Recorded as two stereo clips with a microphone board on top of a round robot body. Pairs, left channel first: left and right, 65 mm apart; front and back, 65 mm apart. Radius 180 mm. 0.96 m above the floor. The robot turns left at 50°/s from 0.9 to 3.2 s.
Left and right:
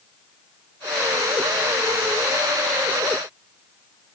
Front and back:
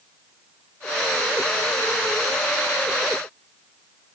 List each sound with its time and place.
Only background noise.